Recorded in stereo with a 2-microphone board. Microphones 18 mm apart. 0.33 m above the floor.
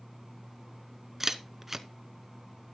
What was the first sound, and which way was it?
A camera shutter, 10° right (ahead or behind).